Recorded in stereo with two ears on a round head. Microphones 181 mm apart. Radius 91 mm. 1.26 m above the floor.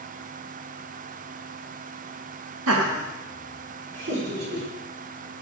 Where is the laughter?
85° right, 0.9 m; by 4.7 s 60° right (ahead or behind), 4 m.